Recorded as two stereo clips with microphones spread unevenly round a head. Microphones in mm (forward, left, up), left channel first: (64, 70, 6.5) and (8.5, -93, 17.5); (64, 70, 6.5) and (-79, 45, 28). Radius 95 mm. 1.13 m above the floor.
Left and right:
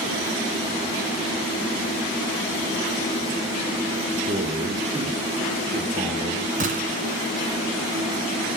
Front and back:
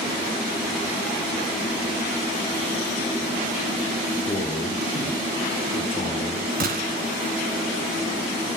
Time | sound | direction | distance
4.3 | a man speaking | 55° right | 3 m
6.6 | a gunshot | 155° right | 2 m